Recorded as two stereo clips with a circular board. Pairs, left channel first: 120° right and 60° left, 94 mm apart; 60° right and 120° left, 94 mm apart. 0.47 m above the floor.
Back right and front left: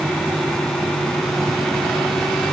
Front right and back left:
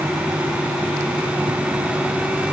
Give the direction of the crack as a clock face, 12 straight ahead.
I don't hear a crack.